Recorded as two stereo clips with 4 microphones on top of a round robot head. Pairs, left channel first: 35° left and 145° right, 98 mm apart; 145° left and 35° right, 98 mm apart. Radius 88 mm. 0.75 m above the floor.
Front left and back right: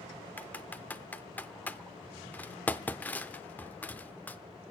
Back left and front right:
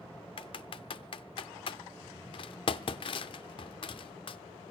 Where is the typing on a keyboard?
110° left, 0.8 m.